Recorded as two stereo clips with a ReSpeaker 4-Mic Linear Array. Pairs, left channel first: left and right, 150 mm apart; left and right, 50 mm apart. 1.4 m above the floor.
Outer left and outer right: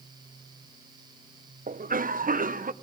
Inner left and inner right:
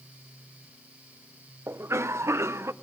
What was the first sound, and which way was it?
A cough, 65° right (ahead or behind).